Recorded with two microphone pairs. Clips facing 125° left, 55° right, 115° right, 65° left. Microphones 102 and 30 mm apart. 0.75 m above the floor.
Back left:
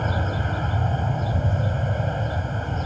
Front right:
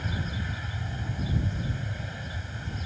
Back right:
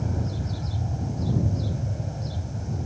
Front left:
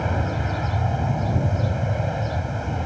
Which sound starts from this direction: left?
An aircraft, at 0.0 s.